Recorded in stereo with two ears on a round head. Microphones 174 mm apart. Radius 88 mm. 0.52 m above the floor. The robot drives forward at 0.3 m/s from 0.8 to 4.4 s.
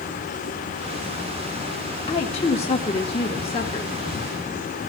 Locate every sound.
2.1 s a woman speaking: 35° left (ahead or behind), 1.5 m; by 3.9 s 30° left (ahead or behind), 1.7 m